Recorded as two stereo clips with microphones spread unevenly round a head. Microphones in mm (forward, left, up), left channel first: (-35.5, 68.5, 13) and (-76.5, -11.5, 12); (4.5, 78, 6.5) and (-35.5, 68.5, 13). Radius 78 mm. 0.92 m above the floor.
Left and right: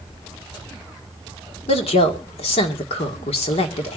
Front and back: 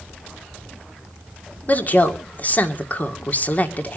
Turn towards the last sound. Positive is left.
turn(degrees=60)